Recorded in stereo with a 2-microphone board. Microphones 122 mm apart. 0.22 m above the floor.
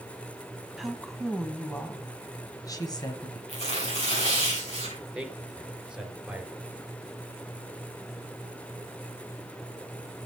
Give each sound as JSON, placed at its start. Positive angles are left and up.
{"t": 0.8, "sound": "a woman speaking", "side_deg": -5, "distance_m": 1.7}
{"t": 3.5, "sound": "tearing paper", "side_deg": 55, "distance_m": 5.5}
{"t": 5.2, "sound": "a man speaking", "side_deg": -10, "distance_m": 3.0}